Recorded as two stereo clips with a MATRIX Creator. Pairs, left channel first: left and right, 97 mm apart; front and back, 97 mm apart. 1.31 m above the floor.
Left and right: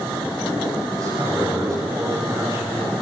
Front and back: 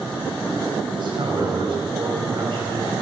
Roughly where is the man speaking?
Behind right.